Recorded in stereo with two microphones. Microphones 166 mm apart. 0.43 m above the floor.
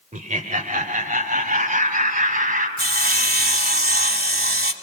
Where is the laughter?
50° right (ahead or behind), 1.3 m; by 2.7 s 55° right (ahead or behind), 3 m.